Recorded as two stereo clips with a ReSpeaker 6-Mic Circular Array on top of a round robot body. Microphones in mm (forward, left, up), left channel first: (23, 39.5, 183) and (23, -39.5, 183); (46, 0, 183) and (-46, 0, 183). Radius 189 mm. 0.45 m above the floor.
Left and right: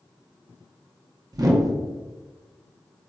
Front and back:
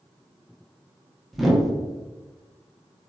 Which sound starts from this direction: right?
A whoosh, at 1.3 s.